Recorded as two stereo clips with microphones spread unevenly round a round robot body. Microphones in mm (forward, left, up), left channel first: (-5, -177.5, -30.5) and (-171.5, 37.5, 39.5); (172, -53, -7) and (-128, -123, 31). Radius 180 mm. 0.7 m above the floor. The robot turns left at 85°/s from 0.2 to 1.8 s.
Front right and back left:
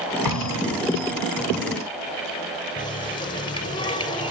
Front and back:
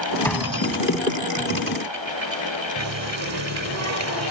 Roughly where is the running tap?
Behind right.